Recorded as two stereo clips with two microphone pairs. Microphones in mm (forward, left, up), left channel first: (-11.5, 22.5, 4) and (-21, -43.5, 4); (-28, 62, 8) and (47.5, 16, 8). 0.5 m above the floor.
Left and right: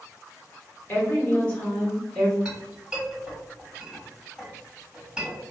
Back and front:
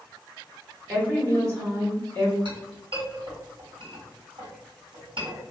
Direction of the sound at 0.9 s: 30° left.